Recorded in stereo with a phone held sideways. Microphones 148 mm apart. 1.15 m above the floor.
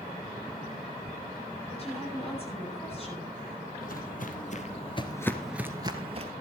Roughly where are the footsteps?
Left.